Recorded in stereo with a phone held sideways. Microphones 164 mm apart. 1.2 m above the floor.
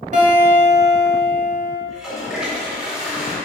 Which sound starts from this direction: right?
A guitar, at 0.1 s.